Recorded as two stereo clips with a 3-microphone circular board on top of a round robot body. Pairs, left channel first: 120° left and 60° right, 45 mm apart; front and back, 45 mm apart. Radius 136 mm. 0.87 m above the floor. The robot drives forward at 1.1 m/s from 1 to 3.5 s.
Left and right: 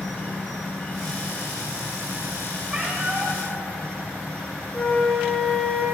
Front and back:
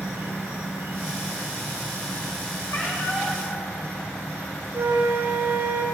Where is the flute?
160° right, 1.2 m.